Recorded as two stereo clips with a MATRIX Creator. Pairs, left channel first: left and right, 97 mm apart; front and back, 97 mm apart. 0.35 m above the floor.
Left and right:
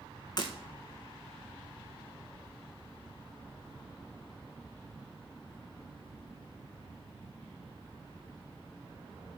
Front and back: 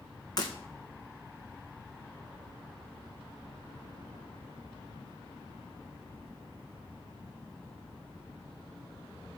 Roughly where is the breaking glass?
Ahead left.